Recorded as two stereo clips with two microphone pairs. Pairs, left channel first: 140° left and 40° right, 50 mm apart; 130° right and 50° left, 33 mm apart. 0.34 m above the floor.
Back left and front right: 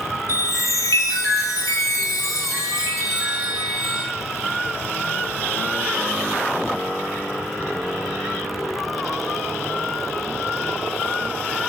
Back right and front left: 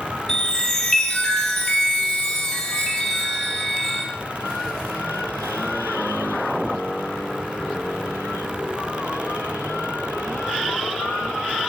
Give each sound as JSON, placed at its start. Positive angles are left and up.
{"t": 0.3, "sound": "a chime", "azimuth_deg": 150, "distance_m": 3.0}